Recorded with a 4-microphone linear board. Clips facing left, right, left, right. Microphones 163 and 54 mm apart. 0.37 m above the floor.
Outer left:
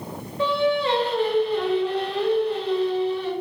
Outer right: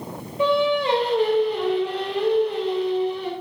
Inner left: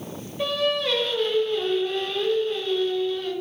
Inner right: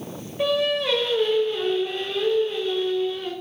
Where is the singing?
15° right (ahead or behind), 0.5 m.